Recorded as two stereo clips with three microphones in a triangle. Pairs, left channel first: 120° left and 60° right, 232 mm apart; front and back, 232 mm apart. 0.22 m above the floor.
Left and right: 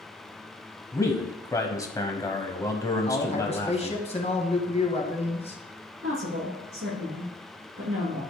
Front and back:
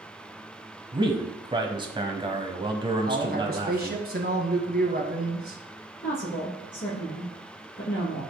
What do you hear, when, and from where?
0.9 s a man speaking: 170° left, 1.1 m
3.1 s a man speaking: 170° left, 1.8 m
6.0 s a woman speaking: 30° right, 3.5 m